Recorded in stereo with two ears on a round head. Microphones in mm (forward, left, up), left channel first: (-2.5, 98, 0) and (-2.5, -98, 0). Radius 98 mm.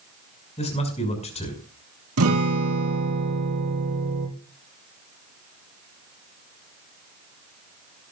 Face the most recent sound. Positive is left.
turn(degrees=-75)  # may be behind; listen again after turning